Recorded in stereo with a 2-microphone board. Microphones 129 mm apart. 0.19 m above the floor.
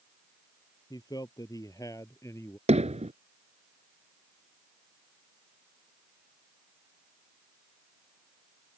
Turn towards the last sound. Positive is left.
turn(degrees=-60)  # may be behind; listen again after turning